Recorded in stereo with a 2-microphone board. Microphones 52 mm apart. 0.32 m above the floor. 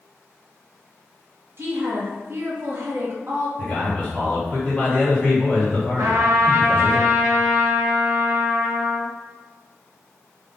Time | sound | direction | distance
1.6 | a woman speaking | 50° right (ahead or behind) | 1.3 m
3.6 | a man speaking | 30° left (ahead or behind) | 1.8 m
6.0 | a trumpet | 60° right (ahead or behind) | 1.4 m